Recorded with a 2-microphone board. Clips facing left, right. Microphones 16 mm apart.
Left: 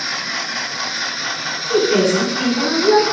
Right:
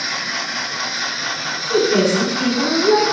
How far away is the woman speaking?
About 2 m.